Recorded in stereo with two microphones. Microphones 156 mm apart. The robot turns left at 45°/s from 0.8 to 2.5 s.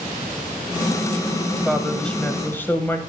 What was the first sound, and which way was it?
A woman speaking, centre (ahead or behind).